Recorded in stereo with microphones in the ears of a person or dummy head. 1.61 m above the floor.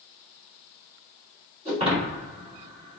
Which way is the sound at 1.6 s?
25° right (ahead or behind).